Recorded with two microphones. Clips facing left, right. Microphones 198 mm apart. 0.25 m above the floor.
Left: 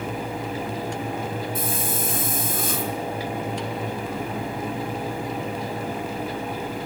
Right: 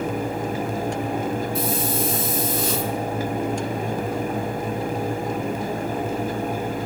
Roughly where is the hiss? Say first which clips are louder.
Right 4 dB; left.